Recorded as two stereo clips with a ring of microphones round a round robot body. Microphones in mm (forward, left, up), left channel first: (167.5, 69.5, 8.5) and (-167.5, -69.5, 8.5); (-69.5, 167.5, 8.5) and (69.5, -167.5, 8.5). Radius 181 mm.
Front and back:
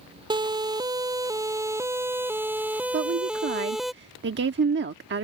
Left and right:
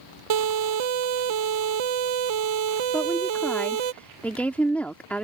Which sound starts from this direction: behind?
A woman speaking, at 2.9 s.